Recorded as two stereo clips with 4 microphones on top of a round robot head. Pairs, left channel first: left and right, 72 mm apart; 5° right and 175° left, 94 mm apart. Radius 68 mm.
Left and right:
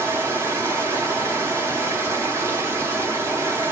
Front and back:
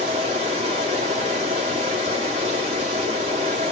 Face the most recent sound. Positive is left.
turn(degrees=-145)